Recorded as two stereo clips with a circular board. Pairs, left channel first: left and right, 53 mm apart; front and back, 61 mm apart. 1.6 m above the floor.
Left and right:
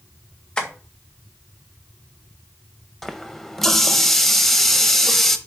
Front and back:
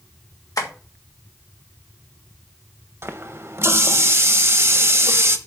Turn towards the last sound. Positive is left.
turn(degrees=175)